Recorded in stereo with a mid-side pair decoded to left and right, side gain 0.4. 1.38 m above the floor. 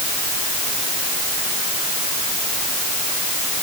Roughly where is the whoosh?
No whoosh in this recording.